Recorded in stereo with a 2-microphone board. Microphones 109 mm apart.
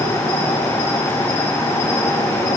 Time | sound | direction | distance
0.0 | an insect | 80° left | 1.3 m